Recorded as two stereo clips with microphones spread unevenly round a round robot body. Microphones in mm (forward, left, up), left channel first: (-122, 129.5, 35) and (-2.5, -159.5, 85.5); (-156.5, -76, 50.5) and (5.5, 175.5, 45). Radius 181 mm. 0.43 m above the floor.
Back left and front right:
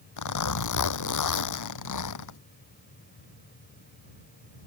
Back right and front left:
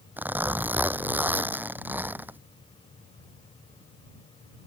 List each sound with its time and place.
0.2 s a zipper: 140° left